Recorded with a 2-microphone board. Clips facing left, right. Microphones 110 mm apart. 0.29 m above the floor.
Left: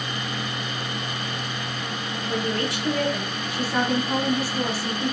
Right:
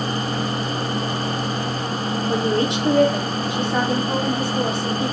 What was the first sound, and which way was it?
A woman speaking, 20° right (ahead or behind).